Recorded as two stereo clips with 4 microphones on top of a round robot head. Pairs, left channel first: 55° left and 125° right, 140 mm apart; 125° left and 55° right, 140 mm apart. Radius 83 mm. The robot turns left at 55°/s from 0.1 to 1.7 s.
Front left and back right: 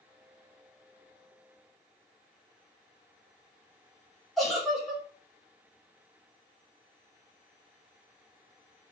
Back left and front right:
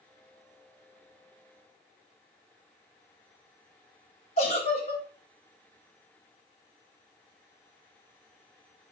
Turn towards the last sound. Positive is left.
turn(degrees=140)